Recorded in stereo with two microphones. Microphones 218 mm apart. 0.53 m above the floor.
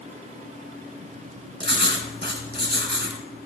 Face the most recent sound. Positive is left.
turn(degrees=-50)  # may be behind; listen again after turning